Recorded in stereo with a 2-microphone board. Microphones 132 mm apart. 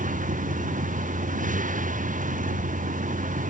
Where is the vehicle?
80° right.